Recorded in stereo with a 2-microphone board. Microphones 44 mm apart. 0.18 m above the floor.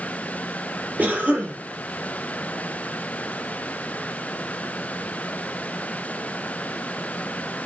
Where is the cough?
35° right (ahead or behind), 4 m.